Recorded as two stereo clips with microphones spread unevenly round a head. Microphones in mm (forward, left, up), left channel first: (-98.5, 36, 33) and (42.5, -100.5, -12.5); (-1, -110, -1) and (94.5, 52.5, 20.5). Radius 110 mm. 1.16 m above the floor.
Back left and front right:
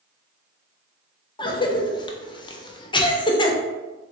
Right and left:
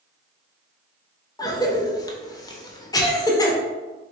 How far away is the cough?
About 0.6 m.